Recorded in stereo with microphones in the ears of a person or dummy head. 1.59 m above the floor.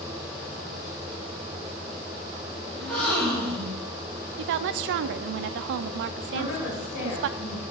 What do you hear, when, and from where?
2.8 s a gasp: 5° left (ahead or behind), 3 m
4.4 s a woman speaking: 65° right (ahead or behind), 0.5 m
6.3 s a woman speaking: 65° left (ahead or behind), 3.5 m